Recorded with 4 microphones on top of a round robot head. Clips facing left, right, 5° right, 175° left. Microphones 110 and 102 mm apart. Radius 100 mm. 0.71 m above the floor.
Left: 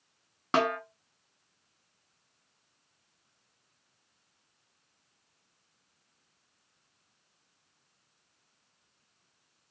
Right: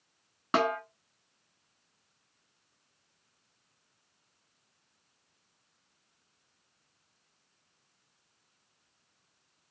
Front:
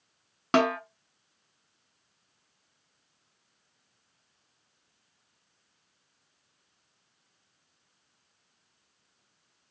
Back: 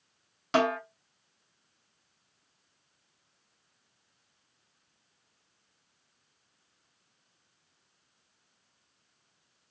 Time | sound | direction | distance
0.5 | a snare drum | 5° right | 1.3 m